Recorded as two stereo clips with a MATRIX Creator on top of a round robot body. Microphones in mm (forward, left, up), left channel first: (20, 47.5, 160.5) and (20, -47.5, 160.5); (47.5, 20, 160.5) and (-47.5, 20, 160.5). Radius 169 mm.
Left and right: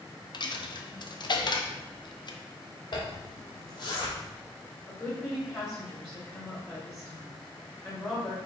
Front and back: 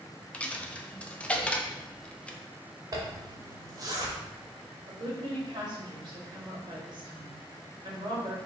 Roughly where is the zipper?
Behind left.